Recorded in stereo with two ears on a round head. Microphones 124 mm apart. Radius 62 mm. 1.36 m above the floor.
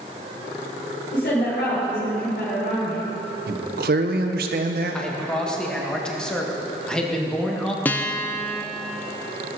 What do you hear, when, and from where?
1.1 s a woman speaking: 70° left (ahead or behind), 3.5 m
3.5 s a man speaking: 75° right (ahead or behind), 1.2 m
4.9 s a man speaking: 5° left (ahead or behind), 1.6 m
7.8 s a guitar: 10° left (ahead or behind), 0.6 m